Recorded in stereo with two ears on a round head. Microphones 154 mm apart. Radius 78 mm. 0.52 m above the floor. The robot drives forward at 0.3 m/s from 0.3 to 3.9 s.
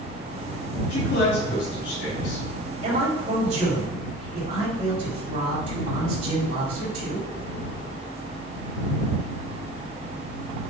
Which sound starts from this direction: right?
A man speaking, at 2.8 s.